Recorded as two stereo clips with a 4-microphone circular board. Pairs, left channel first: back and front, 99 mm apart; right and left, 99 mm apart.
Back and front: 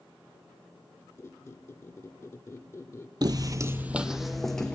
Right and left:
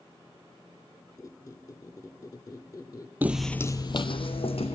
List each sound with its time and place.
1.2 s a squeak: 125° right, 0.8 m
3.2 s footsteps: 25° left, 0.6 m; by 4.8 s 95° right, 1.4 m